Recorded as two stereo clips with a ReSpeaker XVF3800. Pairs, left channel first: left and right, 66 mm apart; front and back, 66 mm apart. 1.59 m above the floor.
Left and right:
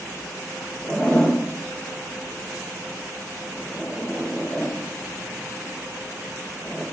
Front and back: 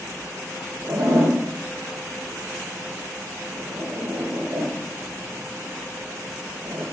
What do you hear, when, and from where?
0.8 s a zipper: 170° left, 2.5 m